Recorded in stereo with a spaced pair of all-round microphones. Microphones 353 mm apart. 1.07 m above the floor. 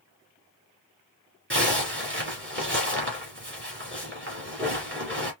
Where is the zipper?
35° right (ahead or behind), 2 m.